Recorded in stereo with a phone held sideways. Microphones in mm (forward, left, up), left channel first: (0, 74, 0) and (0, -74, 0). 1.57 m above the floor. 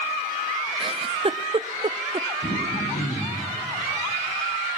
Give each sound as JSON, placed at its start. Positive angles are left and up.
{"t": 0.8, "sound": "a giggle", "side_deg": -40, "distance_m": 0.6}
{"t": 2.4, "sound": "throat clearing", "side_deg": 65, "distance_m": 5.5}